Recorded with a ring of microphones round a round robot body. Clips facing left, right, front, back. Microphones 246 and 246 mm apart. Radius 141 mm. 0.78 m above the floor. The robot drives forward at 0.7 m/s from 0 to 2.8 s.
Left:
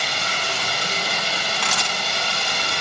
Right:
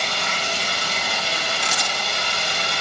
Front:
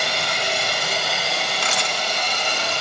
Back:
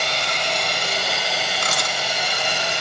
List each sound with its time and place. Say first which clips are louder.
0.0 s running water: right 1 dB, front 1 dB; 80° left, 4.5 m; by 2.8 s 105° left, 4.5 m
1.6 s a camera shutter: even, even; 130° left, 3 m; by 2.0 s 135° left, 3.5 m